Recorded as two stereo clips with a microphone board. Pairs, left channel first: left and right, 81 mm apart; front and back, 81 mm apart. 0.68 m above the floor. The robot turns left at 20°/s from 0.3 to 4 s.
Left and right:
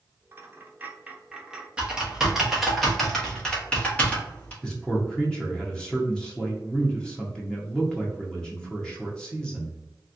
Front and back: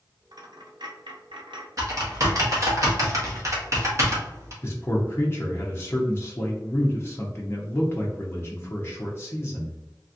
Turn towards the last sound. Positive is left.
turn(degrees=20)